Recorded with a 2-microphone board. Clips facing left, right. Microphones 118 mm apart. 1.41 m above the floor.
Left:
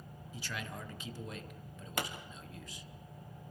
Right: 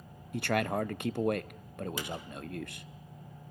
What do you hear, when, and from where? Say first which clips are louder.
0.3 s a man speaking: right 14 dB; 70° right (ahead or behind), 0.6 m
2.0 s a pop: left 1 dB; 65° left (ahead or behind), 1.9 m